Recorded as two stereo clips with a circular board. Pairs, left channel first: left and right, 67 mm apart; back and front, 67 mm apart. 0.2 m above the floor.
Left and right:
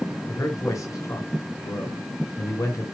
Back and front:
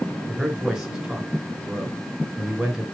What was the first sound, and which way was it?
A man speaking, 80° left.